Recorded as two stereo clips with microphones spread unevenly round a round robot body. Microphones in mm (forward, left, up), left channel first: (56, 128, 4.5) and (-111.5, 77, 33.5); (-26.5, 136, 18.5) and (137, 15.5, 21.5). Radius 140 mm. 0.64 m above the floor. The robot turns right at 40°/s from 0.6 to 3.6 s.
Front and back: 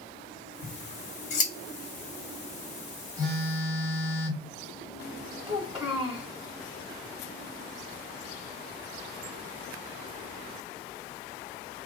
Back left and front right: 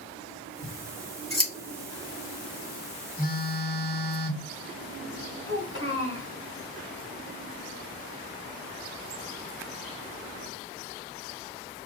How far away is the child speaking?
About 1.5 m.